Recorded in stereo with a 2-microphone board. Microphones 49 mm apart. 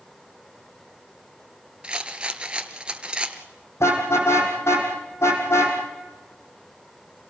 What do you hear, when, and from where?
1.8 s a rattle: 20° right (ahead or behind), 1.4 m
3.8 s a car horn: 70° left (ahead or behind), 4.5 m